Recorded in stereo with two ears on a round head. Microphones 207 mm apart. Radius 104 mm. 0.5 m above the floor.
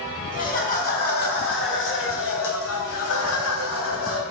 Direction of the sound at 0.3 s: 35° left (ahead or behind).